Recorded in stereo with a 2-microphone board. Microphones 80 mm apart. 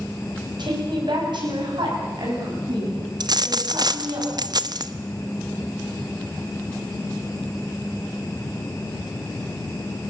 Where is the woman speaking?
60° right (ahead or behind), 7 m; by 4.2 s 70° right (ahead or behind), 11 m.